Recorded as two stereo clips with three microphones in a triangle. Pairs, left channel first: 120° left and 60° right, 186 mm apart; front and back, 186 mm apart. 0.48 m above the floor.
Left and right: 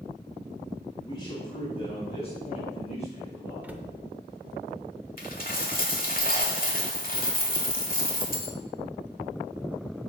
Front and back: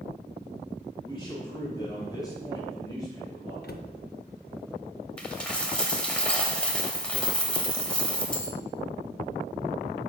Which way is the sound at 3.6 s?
20° left.